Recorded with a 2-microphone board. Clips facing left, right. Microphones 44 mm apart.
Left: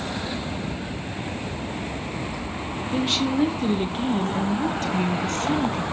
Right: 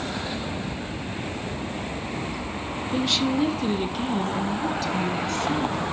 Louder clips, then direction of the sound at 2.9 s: Even; 20° left (ahead or behind).